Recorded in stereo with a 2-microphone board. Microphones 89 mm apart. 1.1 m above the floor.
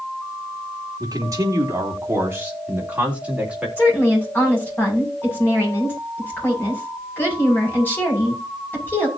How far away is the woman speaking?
About 7.5 m.